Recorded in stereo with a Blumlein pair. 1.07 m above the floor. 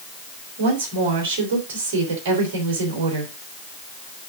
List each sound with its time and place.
0.6 s a woman speaking: 55° right, 3.5 m